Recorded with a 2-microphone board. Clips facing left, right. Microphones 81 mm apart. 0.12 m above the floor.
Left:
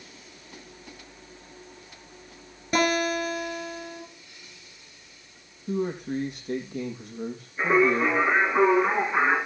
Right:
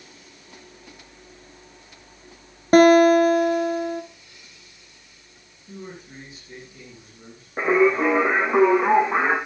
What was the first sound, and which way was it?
A guitar, 45° right (ahead or behind).